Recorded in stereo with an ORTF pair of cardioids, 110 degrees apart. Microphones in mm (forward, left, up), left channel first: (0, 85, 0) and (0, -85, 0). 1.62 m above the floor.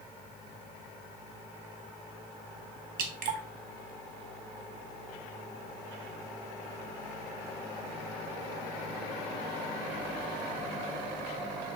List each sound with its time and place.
3.0 s dripping: 60° right, 0.7 m